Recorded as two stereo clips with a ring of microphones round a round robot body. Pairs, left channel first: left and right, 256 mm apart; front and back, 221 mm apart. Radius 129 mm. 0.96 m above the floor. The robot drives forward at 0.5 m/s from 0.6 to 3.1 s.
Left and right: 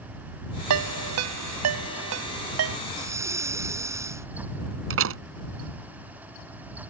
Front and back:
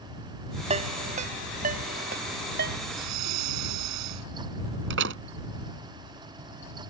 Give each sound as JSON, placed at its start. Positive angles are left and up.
{"t": 0.7, "sound": "a ringtone", "azimuth_deg": -110}
{"t": 2.9, "sound": "breathing", "azimuth_deg": -170}
{"t": 4.9, "sound": "a door slam", "azimuth_deg": -130}